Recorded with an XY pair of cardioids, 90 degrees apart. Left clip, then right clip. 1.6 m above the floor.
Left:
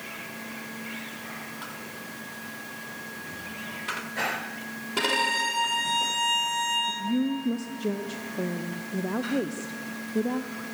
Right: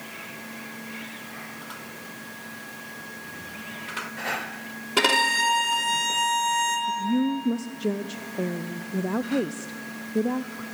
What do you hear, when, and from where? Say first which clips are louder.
5.0 s a violin: right 4 dB; 55° right, 3.5 m
6.9 s a woman speaking: right 3 dB; 25° right, 0.5 m